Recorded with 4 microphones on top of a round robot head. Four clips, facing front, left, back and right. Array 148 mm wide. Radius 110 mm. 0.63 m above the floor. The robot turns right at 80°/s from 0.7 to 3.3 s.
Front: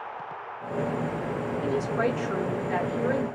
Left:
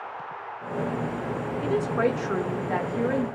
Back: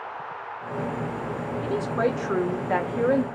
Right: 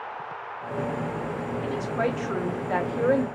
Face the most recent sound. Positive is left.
turn(degrees=-125)